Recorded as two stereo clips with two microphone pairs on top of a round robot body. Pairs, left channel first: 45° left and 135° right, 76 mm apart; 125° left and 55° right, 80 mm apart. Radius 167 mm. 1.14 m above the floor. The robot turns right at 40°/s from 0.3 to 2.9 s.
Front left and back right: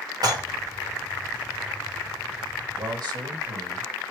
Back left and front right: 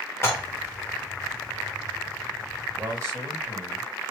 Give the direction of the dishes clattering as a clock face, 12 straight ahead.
6 o'clock.